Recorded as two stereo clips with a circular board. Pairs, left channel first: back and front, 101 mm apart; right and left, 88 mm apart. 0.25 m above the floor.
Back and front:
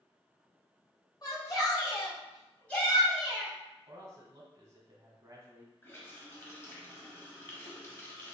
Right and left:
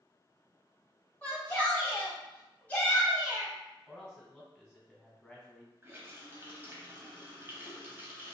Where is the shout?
155° right, 1.7 m; by 3.5 s 60° right, 1.2 m.